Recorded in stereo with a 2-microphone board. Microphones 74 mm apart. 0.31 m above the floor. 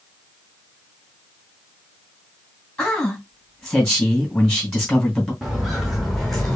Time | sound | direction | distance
2.8 | a man speaking | 5° left (ahead or behind) | 3 m
5.4 | footsteps | 5° right (ahead or behind) | 1.8 m